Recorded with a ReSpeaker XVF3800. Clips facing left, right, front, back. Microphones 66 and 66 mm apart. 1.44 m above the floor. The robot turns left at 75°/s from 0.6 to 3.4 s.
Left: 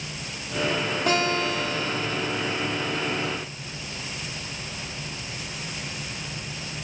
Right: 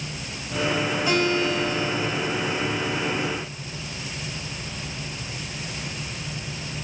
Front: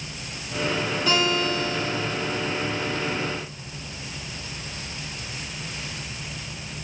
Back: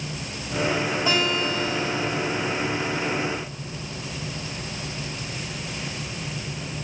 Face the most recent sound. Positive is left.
turn(degrees=-65)